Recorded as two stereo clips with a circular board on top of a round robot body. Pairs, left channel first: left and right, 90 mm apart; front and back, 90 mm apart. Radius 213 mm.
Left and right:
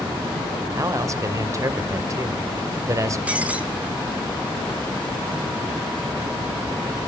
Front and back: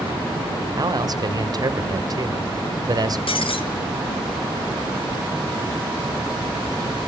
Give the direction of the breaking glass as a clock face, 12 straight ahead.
12 o'clock.